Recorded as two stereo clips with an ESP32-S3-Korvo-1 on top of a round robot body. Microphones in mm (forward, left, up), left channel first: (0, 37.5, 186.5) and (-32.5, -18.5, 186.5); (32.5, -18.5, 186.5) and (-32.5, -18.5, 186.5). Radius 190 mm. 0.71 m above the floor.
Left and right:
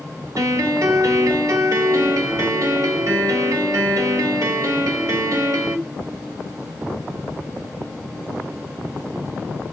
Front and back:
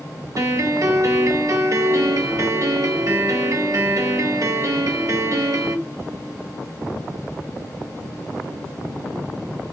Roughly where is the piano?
Behind right.